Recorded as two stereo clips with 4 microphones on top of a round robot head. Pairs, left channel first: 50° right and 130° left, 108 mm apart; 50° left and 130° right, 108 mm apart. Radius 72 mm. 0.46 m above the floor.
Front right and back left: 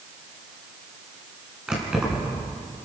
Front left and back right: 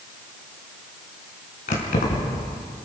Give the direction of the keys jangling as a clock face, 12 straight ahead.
10 o'clock.